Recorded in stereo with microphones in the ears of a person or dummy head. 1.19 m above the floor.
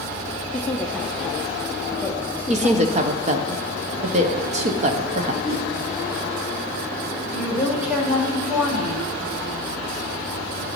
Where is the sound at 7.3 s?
10° right (ahead or behind), 2 m.